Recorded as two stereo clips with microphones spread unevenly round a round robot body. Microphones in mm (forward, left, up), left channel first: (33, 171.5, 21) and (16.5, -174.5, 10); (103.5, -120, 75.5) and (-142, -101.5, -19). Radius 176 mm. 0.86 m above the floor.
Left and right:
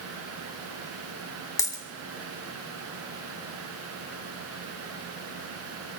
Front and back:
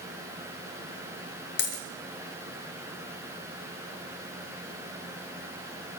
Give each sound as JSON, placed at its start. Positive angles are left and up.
{"t": 1.6, "sound": "a dropped coin", "azimuth_deg": 10, "distance_m": 1.6}